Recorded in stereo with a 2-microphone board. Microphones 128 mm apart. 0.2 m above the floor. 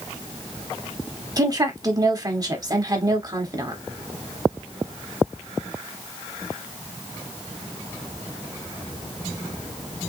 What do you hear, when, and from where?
1.4 s a woman speaking: 30° right (ahead or behind), 1.1 m